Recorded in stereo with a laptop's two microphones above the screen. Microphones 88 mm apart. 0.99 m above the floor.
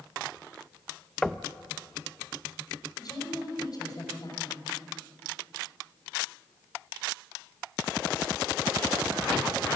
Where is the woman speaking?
50° left (ahead or behind), 5.5 m.